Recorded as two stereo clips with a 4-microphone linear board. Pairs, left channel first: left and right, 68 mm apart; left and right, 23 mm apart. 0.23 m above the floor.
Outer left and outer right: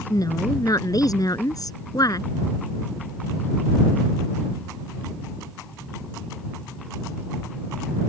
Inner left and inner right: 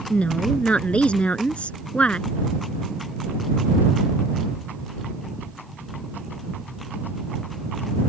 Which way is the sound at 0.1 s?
65° left (ahead or behind).